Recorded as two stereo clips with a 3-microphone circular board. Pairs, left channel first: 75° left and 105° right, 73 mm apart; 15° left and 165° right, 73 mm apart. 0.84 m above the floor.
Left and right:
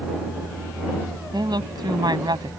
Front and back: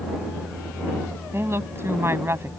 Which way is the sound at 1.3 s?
110° right.